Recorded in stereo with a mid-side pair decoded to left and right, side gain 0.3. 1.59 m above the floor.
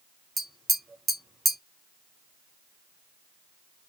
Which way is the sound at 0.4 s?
45° right.